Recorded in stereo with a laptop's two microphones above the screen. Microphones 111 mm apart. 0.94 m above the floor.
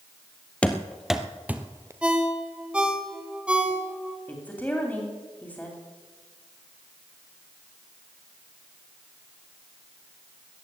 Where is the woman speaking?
15° left (ahead or behind), 2.5 m.